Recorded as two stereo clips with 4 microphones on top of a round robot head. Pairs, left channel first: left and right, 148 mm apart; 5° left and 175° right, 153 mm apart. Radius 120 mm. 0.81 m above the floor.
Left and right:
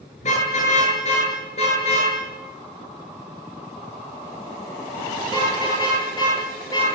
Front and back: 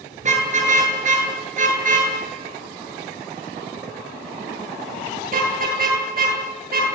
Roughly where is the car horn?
Behind left.